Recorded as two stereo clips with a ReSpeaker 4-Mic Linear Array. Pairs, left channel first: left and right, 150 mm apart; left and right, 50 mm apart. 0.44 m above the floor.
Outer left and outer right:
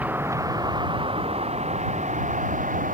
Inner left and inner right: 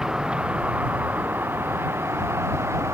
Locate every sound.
0.0 s a vehicle: 10° right (ahead or behind); by 2.9 s 60° right (ahead or behind)